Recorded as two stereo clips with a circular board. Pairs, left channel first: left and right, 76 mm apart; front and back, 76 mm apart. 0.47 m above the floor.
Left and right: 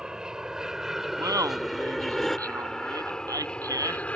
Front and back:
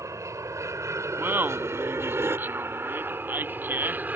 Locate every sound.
0.0 s an aircraft: 165° right; by 4.2 s 140° left
1.2 s laughter: 120° right